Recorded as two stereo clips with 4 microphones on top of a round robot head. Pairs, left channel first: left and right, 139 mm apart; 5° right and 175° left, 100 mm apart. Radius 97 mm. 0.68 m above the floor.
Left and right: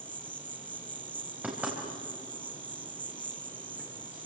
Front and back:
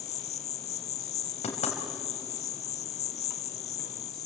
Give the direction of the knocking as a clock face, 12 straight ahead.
12 o'clock.